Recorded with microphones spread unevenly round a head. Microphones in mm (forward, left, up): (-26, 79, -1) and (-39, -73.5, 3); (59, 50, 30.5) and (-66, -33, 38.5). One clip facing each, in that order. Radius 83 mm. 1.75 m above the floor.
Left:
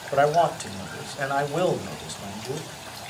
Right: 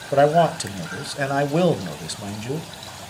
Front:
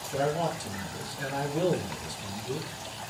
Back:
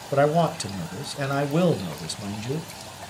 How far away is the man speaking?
About 1.1 m.